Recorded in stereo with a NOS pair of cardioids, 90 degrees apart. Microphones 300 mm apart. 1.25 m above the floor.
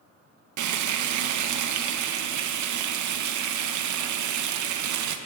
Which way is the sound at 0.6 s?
70° right.